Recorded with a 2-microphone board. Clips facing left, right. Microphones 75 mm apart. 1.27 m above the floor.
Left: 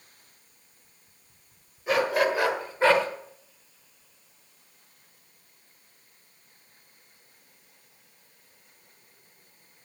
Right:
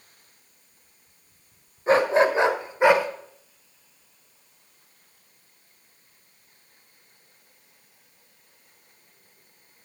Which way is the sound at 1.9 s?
35° right (ahead or behind).